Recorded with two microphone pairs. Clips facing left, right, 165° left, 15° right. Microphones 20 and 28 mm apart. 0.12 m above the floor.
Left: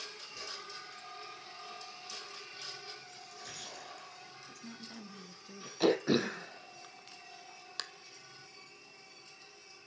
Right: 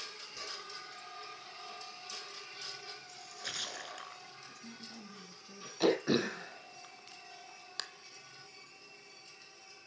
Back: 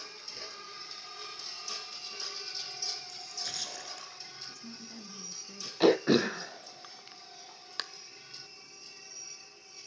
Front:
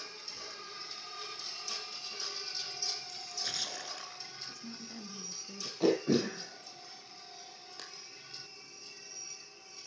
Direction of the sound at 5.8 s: 175° left.